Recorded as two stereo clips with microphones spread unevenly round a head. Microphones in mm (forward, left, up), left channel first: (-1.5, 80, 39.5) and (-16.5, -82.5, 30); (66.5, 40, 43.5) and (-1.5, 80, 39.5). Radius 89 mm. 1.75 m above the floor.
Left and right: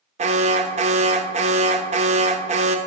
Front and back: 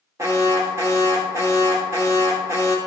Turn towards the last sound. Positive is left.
turn(degrees=-145)